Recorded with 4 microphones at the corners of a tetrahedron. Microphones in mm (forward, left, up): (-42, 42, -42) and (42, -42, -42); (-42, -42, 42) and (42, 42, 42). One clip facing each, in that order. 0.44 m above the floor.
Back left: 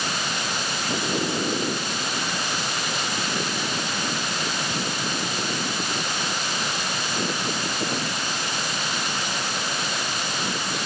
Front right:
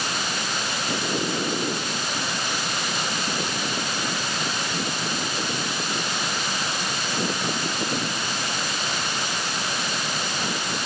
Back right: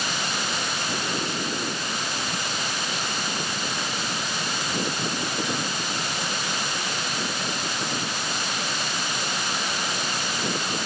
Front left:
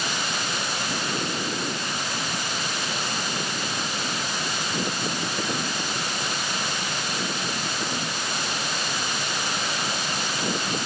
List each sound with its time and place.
Only background noise.